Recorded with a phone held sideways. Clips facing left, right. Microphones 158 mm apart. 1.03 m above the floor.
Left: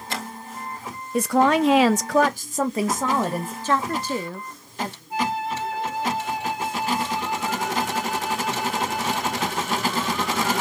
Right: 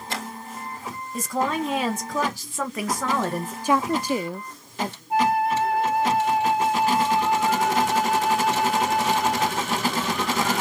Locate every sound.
1.1 s a woman speaking: 60° left (ahead or behind), 0.8 m; by 3.5 s 10° left (ahead or behind), 1.0 m
3.6 s a woman speaking: 10° right (ahead or behind), 0.5 m
5.1 s a flute: 55° right (ahead or behind), 0.6 m